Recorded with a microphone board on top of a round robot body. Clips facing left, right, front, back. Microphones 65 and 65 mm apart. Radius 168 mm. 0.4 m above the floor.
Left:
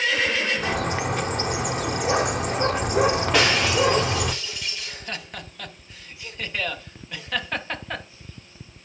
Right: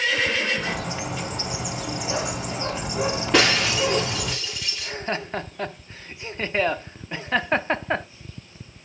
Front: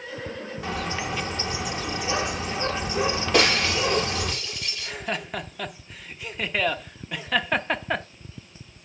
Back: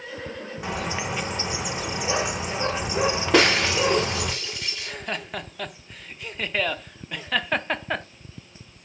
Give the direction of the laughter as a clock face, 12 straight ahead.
3 o'clock.